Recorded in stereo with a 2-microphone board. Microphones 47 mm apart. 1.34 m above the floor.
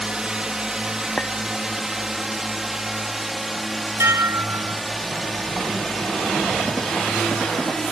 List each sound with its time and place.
0.0 s a drone: 20° right (ahead or behind); by 7.9 s 5° left (ahead or behind)
1.2 s a clink: 25° left (ahead or behind)
4.0 s dishes clattering: 80° right